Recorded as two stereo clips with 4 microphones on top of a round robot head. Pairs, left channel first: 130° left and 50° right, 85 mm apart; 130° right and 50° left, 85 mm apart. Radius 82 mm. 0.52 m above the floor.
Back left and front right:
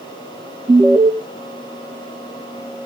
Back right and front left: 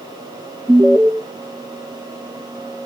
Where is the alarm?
15° right, 1.2 m.